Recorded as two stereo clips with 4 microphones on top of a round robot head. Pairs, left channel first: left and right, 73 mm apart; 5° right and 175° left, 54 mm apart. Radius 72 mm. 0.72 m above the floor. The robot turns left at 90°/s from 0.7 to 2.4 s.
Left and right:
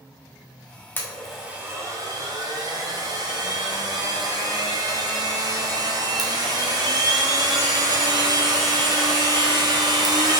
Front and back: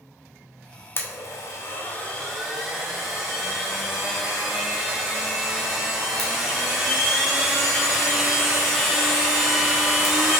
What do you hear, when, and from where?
1.0 s a blender: 30° left, 1.5 m; by 10.4 s 100° right, 1.5 m